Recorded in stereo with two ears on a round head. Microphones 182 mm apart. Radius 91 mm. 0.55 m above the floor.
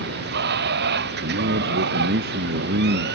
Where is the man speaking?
50° right (ahead or behind).